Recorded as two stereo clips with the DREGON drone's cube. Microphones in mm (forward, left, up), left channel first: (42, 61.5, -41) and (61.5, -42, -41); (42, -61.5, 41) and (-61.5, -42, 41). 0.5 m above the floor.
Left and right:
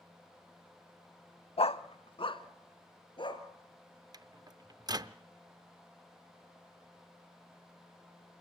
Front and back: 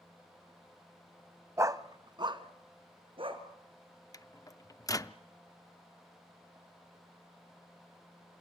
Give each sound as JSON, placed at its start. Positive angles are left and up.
{"t": 1.6, "sound": "a dog barking", "azimuth_deg": 110, "distance_m": 0.6}
{"t": 4.1, "sound": "a microwave", "azimuth_deg": -55, "distance_m": 0.6}